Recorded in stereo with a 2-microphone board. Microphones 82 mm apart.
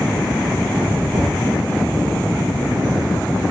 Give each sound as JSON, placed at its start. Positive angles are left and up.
{"t": 1.1, "sound": "knocking", "side_deg": -55, "distance_m": 6.5}